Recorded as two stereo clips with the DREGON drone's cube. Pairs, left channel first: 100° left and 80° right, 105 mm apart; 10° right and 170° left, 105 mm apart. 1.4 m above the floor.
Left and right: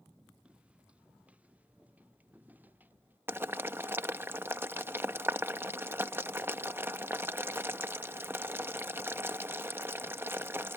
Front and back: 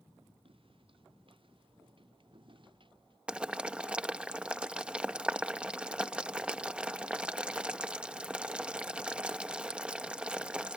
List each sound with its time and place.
0.5 s footsteps: 160° right; by 3.2 s 150° right
3.3 s boiling: 125° right